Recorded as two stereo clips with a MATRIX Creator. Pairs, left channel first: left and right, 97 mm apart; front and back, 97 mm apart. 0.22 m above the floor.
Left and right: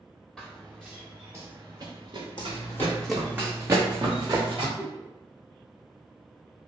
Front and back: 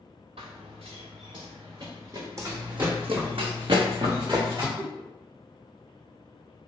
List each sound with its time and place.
0.4 s running footsteps: straight behind, 1.1 m; by 3.3 s 110° right, 1.6 m
2.4 s running footsteps: 120° left, 0.8 m; by 4.7 s 130° right, 1.9 m
4.8 s a giggle: 150° right, 0.5 m